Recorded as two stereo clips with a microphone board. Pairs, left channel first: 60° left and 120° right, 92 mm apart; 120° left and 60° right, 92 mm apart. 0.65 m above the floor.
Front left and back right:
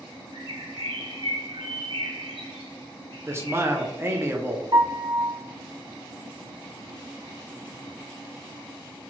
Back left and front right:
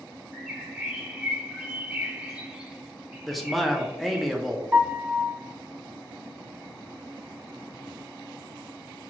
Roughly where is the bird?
Behind right.